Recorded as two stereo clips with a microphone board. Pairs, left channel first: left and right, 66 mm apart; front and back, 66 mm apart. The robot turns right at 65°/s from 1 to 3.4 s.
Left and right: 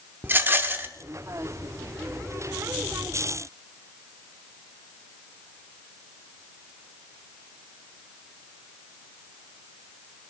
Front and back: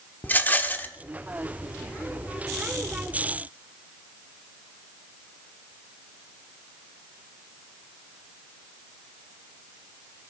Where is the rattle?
50° right, 0.9 m.